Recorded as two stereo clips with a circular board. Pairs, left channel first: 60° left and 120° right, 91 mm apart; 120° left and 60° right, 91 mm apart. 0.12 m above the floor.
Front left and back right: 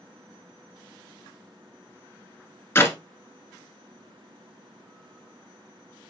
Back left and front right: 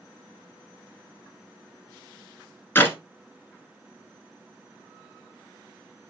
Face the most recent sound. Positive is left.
turn(degrees=85)